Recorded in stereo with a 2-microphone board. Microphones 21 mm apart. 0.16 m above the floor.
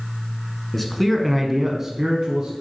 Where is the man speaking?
10° left (ahead or behind), 1.5 m; by 2.5 s 25° right (ahead or behind), 1.4 m.